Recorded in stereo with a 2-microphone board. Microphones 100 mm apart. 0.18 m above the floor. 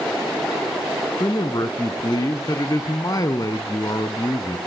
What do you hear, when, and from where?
1.2 s a man speaking: 40° left (ahead or behind), 1.5 m